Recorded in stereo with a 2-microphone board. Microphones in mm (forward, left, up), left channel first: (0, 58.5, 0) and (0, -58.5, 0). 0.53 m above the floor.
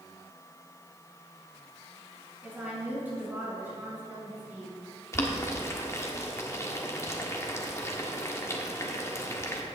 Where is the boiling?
25° left (ahead or behind), 1.5 m.